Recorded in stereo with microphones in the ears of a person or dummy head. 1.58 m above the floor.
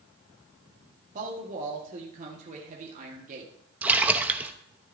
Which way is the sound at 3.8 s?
5° right (ahead or behind).